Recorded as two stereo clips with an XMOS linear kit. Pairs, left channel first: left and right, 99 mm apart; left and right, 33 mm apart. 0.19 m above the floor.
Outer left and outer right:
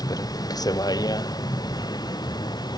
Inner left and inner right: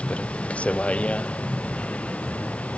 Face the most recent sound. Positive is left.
turn(degrees=45)  # may be behind; listen again after turning